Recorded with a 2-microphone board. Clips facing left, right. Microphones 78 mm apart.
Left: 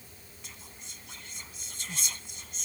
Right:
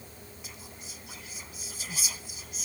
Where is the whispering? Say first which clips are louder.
Right 3 dB; 5° right (ahead or behind).